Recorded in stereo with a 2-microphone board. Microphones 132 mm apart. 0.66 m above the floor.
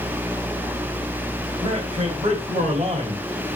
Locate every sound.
1.6 s a man speaking: 50° right (ahead or behind), 2.5 m; by 3.6 s 60° right (ahead or behind), 1.6 m